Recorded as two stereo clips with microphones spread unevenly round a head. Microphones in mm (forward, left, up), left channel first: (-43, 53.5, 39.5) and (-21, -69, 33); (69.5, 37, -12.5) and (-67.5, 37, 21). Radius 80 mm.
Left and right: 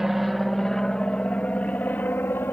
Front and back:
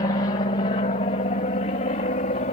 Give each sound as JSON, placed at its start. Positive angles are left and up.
{"t": 0.0, "sound": "an aircraft", "azimuth_deg": 5}